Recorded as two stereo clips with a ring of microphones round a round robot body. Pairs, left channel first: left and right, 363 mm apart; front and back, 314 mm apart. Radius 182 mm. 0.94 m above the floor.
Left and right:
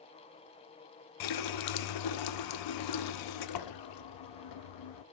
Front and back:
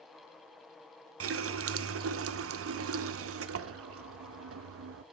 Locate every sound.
1.2 s a running tap: 130° left, 0.5 m